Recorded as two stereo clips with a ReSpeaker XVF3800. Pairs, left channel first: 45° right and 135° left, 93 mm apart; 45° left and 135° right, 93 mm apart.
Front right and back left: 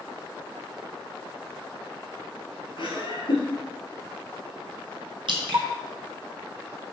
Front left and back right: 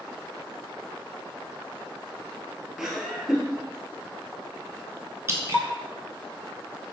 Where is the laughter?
55° right, 2.5 m.